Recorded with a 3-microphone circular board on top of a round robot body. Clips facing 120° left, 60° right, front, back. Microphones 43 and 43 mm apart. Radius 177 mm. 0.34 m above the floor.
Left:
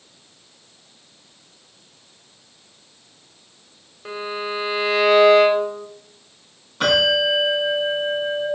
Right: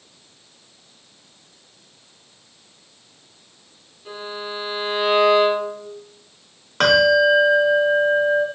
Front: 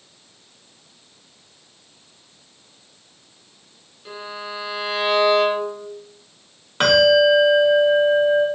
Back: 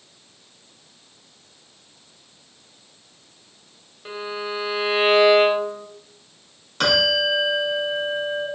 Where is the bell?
60° right, 1.4 m.